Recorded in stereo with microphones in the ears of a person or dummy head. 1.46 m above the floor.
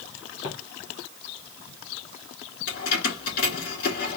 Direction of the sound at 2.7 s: 50° left (ahead or behind).